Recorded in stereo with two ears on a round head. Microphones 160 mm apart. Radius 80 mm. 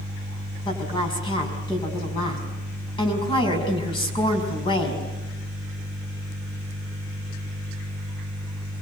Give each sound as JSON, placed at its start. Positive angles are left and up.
{"t": 0.7, "sound": "a woman speaking", "side_deg": 30, "distance_m": 5.5}